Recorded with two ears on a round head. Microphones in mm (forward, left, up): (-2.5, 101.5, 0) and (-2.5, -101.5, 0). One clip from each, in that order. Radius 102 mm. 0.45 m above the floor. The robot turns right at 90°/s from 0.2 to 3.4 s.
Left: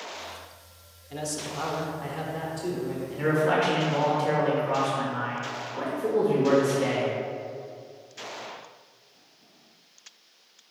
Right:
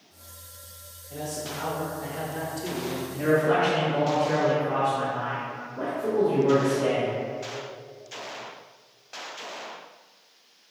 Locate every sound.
1.1 s a man speaking: 70° left, 1.0 m; by 3.0 s 120° right, 1.0 m
3.1 s a man speaking: 40° left (ahead or behind), 1.2 m; by 7.1 s 45° left (ahead or behind), 1.2 m